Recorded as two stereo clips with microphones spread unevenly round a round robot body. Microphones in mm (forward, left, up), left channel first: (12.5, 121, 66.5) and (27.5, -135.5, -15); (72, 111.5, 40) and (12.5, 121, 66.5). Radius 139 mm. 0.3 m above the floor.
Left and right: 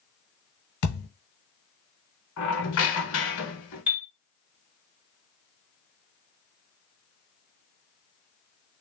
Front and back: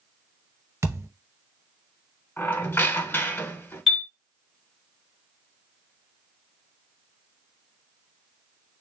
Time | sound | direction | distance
0.8 | a thud | 125° left | 1.4 m
2.4 | a squeak | 45° left | 1.2 m
3.9 | a chime | 40° right | 1.5 m